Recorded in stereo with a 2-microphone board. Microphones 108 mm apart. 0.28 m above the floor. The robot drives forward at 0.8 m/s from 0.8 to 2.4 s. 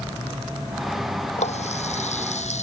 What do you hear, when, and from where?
1.4 s a running tap: 75° left (ahead or behind); by 2.6 s 80° left